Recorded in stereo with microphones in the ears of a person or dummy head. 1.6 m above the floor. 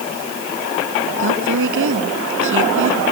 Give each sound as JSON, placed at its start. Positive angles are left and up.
{"t": 1.2, "sound": "a woman speaking", "side_deg": -80}